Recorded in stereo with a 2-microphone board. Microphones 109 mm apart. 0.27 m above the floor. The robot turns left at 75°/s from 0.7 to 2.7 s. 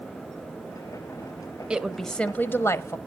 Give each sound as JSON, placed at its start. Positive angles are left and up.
{"t": 1.7, "sound": "a woman speaking", "side_deg": -10, "distance_m": 1.1}